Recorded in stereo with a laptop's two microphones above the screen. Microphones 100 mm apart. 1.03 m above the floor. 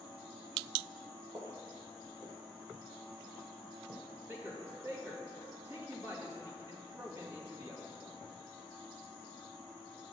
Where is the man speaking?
25° right (ahead or behind), 1.9 m.